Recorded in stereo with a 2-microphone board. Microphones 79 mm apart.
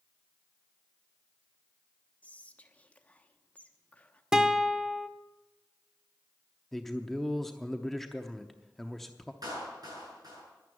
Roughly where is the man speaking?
Centre.